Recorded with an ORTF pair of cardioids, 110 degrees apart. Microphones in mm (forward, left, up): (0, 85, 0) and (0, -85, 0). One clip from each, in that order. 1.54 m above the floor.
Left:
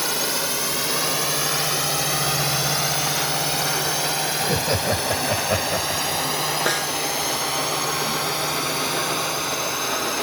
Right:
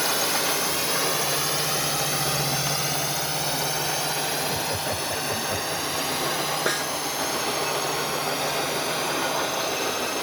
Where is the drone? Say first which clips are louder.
Even; 10° left; by 10.2 s 25° left.